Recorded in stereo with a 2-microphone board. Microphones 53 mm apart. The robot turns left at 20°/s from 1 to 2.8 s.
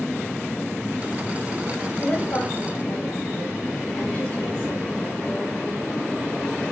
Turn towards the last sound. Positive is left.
turn(degrees=45)  # may be behind; listen again after turning